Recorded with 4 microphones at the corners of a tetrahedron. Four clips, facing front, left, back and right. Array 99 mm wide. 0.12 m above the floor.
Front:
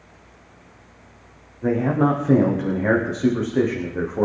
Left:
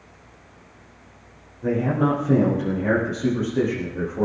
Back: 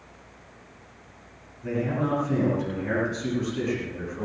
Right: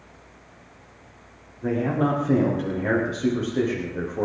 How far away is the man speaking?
About 8.5 m.